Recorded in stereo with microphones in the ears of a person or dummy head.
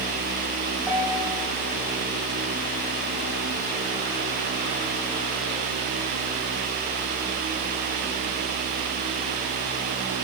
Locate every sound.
0.9 s a piano: 5° right (ahead or behind), 8 m